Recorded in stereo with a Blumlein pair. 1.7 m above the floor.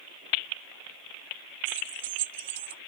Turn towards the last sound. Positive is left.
turn(degrees=-50)